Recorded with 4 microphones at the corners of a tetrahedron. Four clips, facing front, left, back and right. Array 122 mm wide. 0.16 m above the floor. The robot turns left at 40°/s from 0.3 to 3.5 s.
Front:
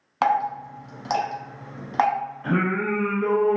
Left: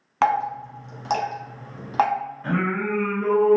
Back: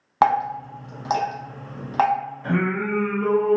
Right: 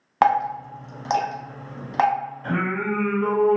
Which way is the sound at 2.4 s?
65° left.